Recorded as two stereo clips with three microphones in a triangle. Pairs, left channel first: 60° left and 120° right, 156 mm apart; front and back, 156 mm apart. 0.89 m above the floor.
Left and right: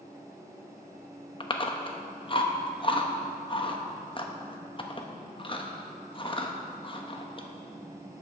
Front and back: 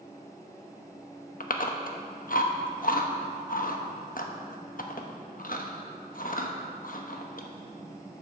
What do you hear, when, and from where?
1.4 s chewing: 5° left, 0.8 m